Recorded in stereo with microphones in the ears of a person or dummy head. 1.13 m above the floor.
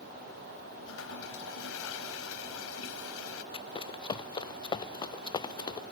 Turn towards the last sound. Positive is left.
turn(degrees=25)  # may be behind; listen again after turning